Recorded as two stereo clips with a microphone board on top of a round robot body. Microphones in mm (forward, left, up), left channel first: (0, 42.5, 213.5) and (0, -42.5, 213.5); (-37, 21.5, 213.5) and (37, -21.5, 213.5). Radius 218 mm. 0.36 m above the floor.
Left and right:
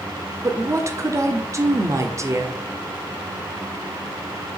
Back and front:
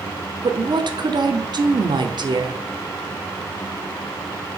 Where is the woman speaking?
40° right, 1.7 m.